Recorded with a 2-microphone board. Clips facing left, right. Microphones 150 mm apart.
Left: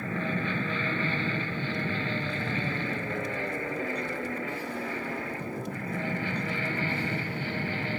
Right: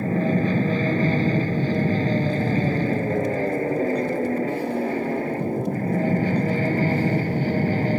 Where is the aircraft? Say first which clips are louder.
Right 10 dB; 35° right (ahead or behind); by 8.0 s 40° right (ahead or behind).